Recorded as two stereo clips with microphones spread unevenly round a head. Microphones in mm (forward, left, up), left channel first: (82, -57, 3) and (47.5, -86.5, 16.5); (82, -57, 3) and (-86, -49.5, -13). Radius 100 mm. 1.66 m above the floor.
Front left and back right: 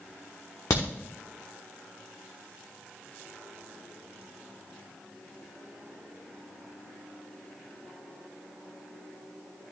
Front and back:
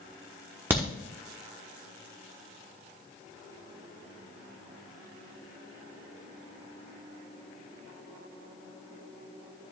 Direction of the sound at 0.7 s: 95° left.